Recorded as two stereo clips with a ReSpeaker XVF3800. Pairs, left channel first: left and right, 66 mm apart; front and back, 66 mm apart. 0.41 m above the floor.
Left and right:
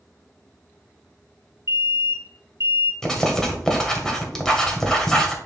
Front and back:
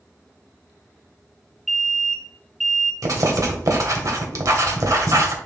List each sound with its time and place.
1.7 s an alarm: 95° right, 1.6 m
3.0 s writing: 170° left, 1.4 m